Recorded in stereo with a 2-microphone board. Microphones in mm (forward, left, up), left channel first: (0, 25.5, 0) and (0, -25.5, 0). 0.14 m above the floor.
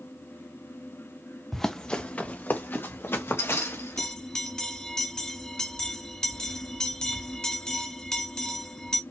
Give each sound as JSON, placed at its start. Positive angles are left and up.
{"t": 1.5, "sound": "running footsteps", "side_deg": 5, "distance_m": 0.9}
{"t": 4.0, "sound": "a bell", "side_deg": 10, "distance_m": 0.9}